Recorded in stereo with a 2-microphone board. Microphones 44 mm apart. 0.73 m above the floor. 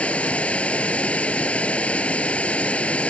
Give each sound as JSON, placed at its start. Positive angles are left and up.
{"t": 0.0, "sound": "running water", "side_deg": 30}